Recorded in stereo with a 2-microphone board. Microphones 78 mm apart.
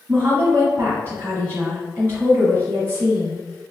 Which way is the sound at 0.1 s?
25° right (ahead or behind).